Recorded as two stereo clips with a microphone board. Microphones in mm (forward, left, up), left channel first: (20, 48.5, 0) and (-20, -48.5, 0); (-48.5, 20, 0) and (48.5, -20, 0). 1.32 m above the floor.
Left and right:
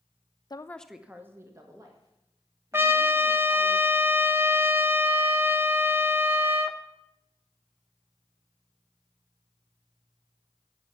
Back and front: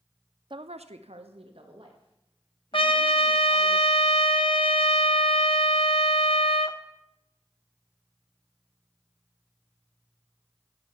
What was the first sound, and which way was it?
A woman speaking, 20° left.